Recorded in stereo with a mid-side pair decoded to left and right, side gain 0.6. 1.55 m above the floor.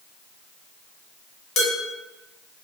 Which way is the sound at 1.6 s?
65° left.